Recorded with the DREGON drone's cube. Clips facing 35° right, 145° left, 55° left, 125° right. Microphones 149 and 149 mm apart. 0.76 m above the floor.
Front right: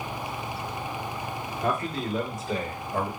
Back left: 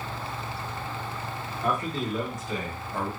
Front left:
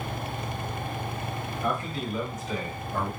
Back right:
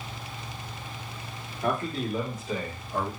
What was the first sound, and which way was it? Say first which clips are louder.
A man speaking: even, back right 3 dB; 90° right.